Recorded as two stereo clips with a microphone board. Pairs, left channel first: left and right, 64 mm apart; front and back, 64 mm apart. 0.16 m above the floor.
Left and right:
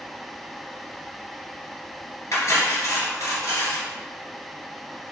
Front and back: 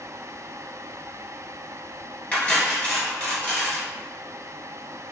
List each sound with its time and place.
2.3 s cutlery clinking: 70° left, 1.3 m